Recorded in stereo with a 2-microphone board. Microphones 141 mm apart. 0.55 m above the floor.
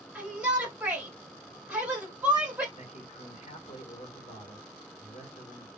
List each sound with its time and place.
0.1 s a shout: 10° right (ahead or behind), 2 m
2.8 s a man speaking: 55° left (ahead or behind), 2.5 m